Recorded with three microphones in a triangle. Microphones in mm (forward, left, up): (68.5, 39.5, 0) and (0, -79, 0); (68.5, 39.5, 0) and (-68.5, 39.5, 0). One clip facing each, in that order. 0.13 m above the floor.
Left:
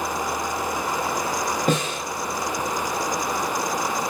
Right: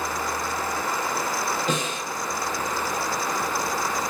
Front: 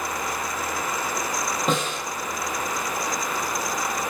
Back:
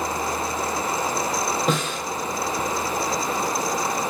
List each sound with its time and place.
1.7 s a snare drum: 90° left, 3.5 m